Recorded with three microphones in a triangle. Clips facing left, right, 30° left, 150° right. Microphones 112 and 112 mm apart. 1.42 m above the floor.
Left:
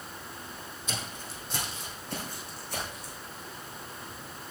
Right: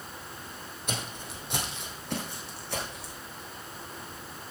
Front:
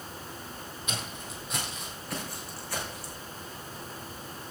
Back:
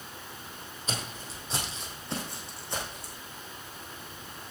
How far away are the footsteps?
About 2.5 m.